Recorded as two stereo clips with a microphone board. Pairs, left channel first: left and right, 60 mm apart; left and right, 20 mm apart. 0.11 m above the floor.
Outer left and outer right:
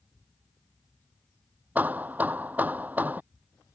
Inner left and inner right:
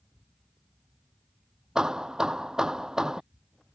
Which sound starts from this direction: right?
Hammering, at 1.8 s.